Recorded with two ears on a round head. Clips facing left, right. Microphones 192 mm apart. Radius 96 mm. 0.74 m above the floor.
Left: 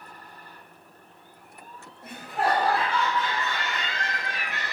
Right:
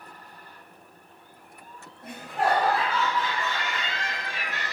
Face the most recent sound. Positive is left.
turn(degrees=-20)  # may be behind; listen again after turning